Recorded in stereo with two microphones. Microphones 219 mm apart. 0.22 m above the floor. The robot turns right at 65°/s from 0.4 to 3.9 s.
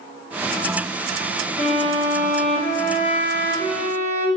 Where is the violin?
150° left, 1.9 m; by 4.3 s 60° right, 1.9 m.